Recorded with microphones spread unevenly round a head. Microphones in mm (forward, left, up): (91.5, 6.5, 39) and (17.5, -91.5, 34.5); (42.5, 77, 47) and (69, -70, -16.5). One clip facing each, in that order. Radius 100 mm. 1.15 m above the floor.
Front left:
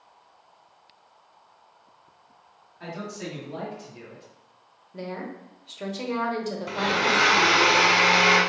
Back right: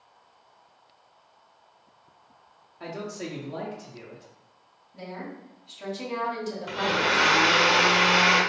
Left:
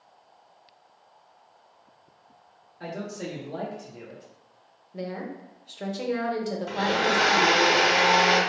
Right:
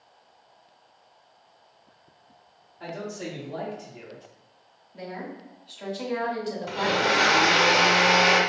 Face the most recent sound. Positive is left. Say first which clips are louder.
# front left 1 dB, right 1 dB
turn(degrees=25)